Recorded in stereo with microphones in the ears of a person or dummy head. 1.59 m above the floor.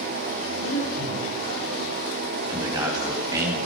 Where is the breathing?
75° left (ahead or behind), 7.5 m.